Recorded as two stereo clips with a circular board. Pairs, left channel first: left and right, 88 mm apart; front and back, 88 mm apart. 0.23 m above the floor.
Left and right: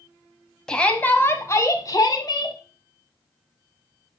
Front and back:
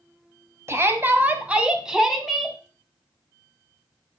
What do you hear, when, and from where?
0.7 s a shout: 160° left, 1.4 m; by 2.6 s 90° left, 2.0 m